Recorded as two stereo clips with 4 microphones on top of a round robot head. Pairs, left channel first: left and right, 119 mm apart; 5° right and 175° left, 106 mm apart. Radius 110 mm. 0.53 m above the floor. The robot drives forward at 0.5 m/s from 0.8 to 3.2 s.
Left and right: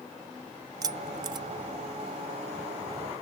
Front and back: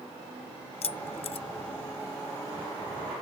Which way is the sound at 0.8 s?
30° right.